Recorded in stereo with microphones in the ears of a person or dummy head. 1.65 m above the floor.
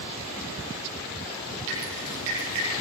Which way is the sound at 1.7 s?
70° right (ahead or behind).